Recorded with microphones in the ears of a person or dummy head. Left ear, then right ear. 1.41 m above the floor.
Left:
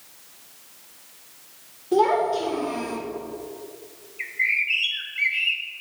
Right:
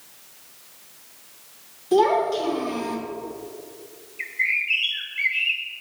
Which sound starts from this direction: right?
A child speaking, at 1.9 s.